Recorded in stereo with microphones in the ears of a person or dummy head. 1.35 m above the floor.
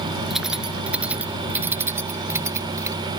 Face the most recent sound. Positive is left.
turn(degrees=-20)  # may be behind; listen again after turning